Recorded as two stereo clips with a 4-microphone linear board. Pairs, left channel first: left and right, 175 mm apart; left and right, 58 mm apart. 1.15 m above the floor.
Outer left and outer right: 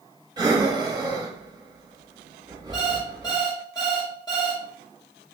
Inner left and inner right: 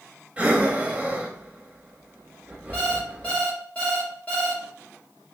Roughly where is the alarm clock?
Left.